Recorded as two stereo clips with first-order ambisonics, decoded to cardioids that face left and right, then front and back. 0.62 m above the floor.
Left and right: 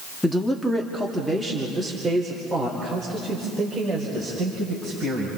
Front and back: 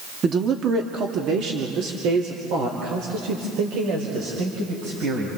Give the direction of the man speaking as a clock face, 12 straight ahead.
6 o'clock.